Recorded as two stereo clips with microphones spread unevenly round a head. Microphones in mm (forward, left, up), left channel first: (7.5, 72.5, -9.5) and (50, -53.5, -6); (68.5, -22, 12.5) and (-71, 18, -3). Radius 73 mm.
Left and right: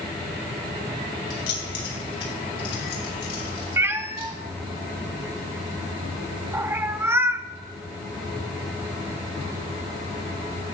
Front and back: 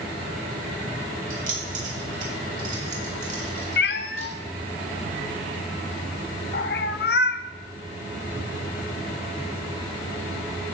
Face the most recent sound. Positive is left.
turn(degrees=0)